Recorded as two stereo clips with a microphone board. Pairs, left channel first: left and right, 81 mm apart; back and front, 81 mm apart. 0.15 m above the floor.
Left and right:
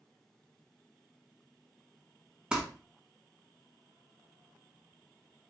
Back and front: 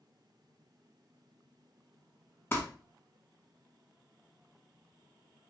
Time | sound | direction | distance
2.5 | crumpling | 155° right | 0.8 m